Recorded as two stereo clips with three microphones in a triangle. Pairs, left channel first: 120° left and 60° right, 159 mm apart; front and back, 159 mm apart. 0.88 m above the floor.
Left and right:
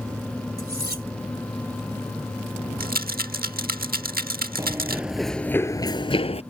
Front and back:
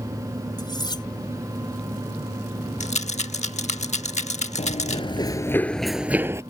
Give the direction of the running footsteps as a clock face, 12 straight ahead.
12 o'clock.